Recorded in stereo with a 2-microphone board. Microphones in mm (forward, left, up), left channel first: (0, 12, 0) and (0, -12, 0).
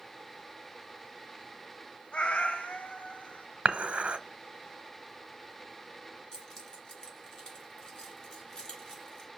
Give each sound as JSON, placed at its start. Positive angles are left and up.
{"t": 2.1, "sound": "a cat meowing", "side_deg": 50, "distance_m": 0.7}
{"t": 3.6, "sound": "dishes clattering", "side_deg": -60, "distance_m": 1.0}
{"t": 6.3, "sound": "keys jangling", "side_deg": 35, "distance_m": 3.0}